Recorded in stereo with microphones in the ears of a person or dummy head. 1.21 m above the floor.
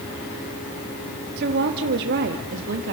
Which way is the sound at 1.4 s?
55° right (ahead or behind).